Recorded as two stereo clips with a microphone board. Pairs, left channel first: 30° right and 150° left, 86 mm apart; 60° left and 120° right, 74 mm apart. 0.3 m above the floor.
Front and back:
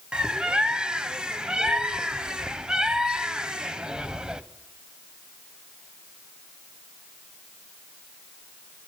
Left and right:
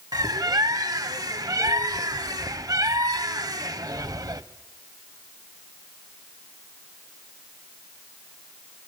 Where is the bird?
130° right, 0.7 m.